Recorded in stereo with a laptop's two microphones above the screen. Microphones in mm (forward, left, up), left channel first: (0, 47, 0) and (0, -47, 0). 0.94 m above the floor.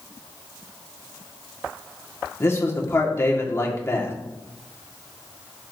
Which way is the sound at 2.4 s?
30° left (ahead or behind).